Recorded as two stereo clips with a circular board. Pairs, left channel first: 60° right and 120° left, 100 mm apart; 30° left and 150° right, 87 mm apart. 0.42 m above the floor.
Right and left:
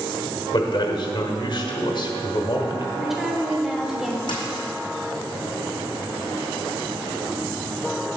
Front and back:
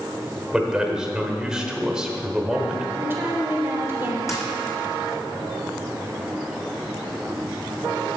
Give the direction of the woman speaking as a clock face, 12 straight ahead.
5 o'clock.